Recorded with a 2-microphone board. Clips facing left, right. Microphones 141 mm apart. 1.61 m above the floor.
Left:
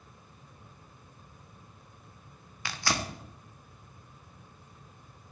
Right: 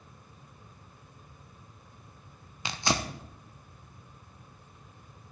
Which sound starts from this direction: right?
Tearing paper, at 2.6 s.